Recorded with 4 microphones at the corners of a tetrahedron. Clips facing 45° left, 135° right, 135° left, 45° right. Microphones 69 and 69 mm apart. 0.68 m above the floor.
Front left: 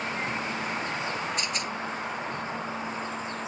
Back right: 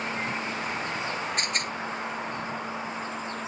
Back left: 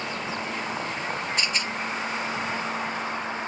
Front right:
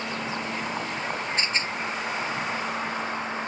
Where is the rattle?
100° right.